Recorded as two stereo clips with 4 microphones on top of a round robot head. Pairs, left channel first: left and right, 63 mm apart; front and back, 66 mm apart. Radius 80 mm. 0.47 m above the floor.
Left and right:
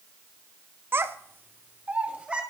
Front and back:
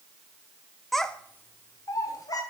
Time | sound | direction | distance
0.9 | a child speaking | 90° right | 0.7 m